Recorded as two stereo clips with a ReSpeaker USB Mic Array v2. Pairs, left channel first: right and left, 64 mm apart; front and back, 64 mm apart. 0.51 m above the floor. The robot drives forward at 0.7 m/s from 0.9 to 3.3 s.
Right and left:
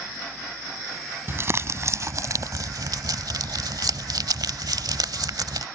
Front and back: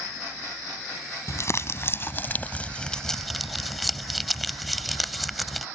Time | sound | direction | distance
1.3 | crumpling | 40° left | ?